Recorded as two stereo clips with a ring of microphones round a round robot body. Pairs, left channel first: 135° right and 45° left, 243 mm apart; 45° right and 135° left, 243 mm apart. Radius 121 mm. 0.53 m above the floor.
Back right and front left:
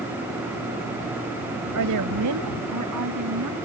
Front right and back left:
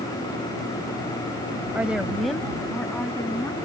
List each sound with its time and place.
1.8 s a woman speaking: 50° left; by 3.6 s 35° left